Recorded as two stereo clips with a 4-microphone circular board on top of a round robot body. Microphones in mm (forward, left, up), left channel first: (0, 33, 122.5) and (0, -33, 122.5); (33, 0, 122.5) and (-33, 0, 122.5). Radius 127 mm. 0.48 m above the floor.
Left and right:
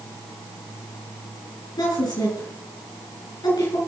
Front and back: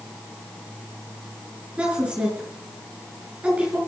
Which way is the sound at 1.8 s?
105° left.